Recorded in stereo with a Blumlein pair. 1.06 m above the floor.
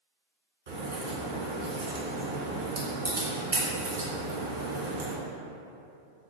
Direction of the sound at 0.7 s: 70° right.